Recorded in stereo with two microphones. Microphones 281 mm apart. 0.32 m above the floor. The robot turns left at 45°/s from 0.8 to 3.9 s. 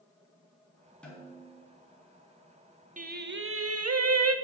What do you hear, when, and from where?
1.0 s a snare drum: 5° left (ahead or behind), 2.5 m; by 1.6 s 30° left (ahead or behind), 2.5 m
3.0 s singing: 30° right, 0.6 m; by 4.3 s 70° right, 0.6 m